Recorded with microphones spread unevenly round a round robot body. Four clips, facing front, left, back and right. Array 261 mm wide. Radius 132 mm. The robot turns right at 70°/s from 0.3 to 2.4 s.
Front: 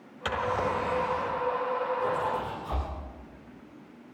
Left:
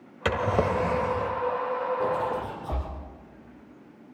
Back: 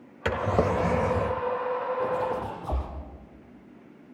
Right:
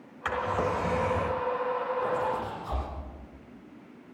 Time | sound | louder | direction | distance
0.2 | a drawer | left 4 dB, back 3 dB | 120° left | 1.2 m
2.0 | a zipper | left 2 dB, back 1 dB | 120° left | 6.5 m